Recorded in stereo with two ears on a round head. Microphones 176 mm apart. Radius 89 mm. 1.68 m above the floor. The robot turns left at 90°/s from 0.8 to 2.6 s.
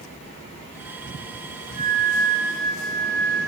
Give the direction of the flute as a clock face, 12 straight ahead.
4 o'clock.